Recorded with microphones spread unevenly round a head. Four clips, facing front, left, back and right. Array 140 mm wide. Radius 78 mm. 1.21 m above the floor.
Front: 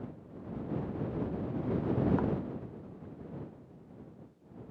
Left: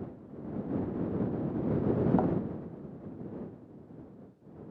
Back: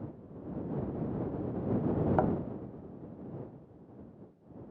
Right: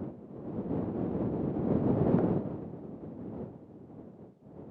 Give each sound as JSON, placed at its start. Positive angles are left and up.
{"t": 2.2, "sound": "a thud", "azimuth_deg": 175}